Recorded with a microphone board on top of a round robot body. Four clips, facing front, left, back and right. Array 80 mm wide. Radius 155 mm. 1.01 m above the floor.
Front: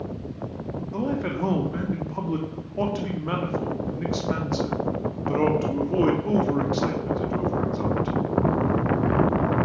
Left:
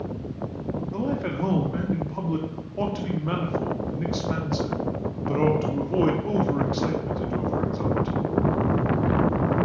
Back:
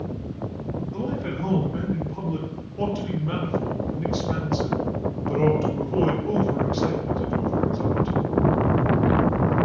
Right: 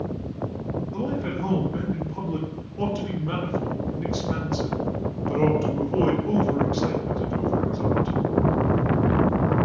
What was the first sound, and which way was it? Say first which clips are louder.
A man speaking: left 1 dB, front 4 dB; 35° left.